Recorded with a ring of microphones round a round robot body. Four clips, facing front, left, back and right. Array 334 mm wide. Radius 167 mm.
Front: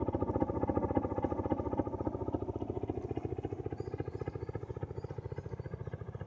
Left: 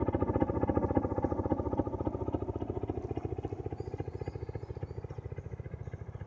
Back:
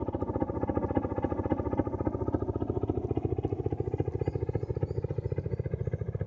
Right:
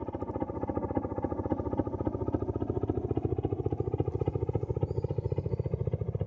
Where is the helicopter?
100° left; by 6.3 s 120° right.